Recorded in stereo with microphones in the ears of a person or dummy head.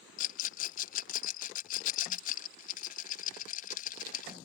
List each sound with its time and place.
0.2 s a rattle: 50° left (ahead or behind)